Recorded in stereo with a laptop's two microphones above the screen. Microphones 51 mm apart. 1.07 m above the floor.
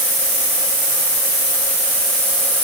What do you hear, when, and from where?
Only background noise.